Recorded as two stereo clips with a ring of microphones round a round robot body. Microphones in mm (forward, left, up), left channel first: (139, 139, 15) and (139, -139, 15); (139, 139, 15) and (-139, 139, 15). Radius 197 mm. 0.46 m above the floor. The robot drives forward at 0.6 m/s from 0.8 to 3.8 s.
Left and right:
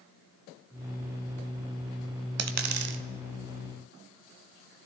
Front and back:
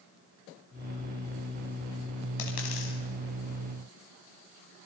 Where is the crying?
I don't hear crying.